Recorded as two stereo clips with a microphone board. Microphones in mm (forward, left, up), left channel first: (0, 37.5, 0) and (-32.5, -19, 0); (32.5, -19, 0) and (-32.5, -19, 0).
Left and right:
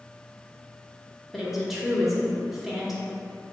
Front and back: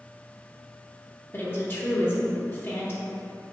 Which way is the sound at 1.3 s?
35° right.